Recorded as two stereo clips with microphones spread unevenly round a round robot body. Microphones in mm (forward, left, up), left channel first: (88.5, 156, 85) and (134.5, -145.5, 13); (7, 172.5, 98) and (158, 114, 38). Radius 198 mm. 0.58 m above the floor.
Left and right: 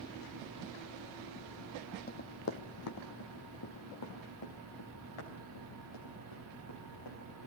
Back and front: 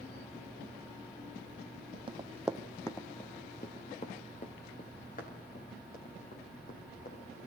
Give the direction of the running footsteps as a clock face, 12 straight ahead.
10 o'clock.